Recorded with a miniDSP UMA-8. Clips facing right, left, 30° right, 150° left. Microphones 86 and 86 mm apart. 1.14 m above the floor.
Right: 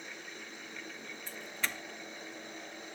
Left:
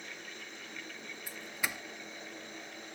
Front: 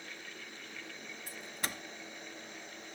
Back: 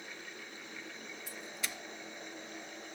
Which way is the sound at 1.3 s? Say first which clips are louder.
Even, front 3 dB; 10° left.